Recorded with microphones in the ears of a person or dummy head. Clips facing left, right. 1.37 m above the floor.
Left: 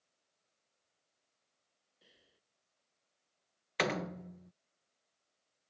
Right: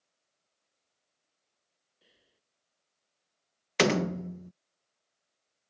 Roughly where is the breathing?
Centre.